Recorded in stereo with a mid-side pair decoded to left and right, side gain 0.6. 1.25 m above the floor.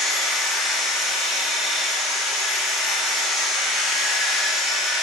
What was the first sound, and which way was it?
A machine running, 55° left.